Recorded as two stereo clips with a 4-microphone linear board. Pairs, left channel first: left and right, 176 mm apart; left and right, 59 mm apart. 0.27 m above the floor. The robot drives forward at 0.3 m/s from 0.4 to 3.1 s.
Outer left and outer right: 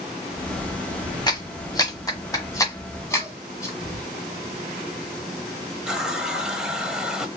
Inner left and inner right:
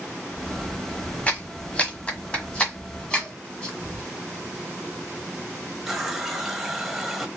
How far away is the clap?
About 1.2 m.